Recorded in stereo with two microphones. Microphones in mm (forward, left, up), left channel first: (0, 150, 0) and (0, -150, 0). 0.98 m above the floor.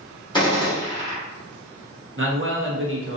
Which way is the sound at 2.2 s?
45° right (ahead or behind).